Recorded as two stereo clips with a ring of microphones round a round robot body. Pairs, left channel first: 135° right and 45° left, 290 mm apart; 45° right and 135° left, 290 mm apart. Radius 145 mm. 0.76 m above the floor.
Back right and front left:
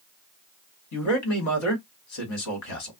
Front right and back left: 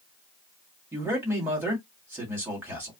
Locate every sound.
0.9 s a man speaking: 140° right, 1.8 m